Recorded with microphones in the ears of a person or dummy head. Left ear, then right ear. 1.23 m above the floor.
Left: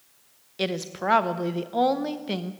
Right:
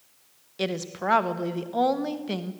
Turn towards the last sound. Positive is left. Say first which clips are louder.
# left 1 dB
turn(degrees=0)  # may be behind; listen again after turning